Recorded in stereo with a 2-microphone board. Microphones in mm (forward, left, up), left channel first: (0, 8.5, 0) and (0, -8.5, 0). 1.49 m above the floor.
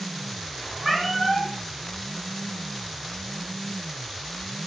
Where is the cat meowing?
5° right (ahead or behind), 0.8 m.